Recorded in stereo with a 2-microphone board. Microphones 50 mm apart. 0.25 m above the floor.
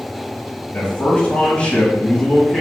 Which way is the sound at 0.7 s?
35° left (ahead or behind).